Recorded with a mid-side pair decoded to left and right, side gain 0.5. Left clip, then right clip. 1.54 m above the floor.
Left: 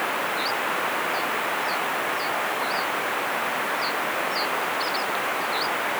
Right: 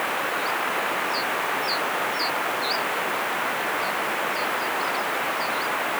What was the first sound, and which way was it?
Only background noise.